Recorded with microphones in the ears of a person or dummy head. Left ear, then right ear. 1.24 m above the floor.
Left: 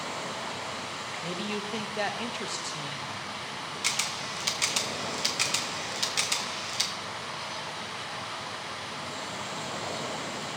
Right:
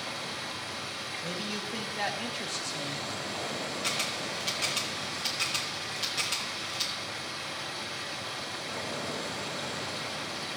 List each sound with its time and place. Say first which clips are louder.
0.0 s running water: left 2 dB; 20° left (ahead or behind), 1.2 m
1.2 s a man speaking: left 3 dB; 25° left (ahead or behind), 1.1 m
3.8 s a camera shutter: left 3 dB; 40° left (ahead or behind), 1.0 m